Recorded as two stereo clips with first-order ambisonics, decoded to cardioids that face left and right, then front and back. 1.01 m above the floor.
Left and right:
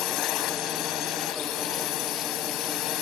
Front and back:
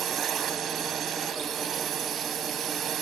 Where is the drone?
125° left.